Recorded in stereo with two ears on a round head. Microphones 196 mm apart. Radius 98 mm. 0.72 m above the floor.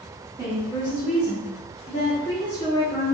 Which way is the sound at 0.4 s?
20° left (ahead or behind).